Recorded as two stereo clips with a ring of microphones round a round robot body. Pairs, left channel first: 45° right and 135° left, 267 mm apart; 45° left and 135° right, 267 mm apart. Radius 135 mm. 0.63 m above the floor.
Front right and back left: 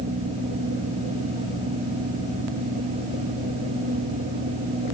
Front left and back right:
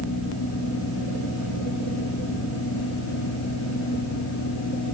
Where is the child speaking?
I don't hear a child speaking.